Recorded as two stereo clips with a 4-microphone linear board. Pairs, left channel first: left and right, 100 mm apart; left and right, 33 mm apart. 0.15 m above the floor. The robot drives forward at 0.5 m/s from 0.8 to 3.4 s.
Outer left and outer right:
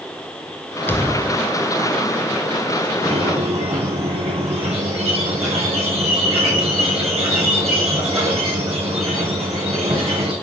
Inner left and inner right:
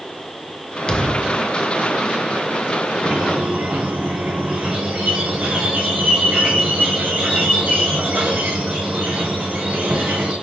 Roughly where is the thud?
Left.